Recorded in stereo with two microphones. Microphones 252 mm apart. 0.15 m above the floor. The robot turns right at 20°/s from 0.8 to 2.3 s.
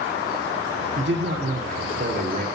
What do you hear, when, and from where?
1.0 s a man speaking: 50° right (ahead or behind), 2 m; by 2.5 s 30° right (ahead or behind), 2 m